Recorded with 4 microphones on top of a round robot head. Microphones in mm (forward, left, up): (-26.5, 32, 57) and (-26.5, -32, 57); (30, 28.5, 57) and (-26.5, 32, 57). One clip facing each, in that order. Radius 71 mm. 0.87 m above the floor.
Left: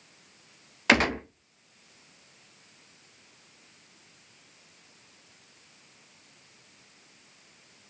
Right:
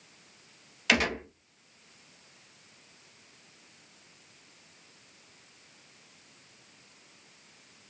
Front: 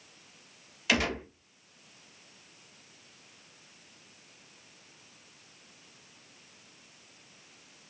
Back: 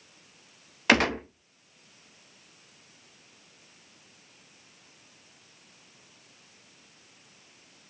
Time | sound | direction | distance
0.9 | a gunshot | 140° left | 0.5 m